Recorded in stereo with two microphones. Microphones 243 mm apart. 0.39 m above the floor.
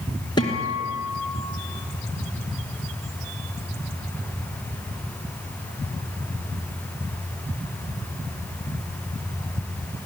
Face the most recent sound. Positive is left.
turn(degrees=15)  # may be behind; listen again after turning